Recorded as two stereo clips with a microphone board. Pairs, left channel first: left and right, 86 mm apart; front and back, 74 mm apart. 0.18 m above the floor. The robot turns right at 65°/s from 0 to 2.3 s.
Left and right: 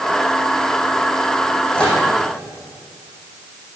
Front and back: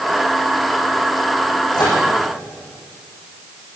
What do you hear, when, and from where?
1.7 s a microwave: 10° left, 6 m; by 2.0 s 30° left, 6 m